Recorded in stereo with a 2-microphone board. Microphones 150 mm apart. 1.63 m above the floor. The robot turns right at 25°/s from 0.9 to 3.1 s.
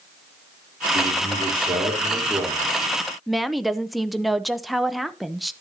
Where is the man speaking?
45° right, 3 m; by 2.8 s straight ahead, 3 m.